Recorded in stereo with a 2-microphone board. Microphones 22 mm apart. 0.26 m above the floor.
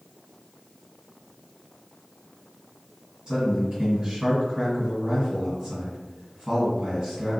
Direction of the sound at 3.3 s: 40° right (ahead or behind).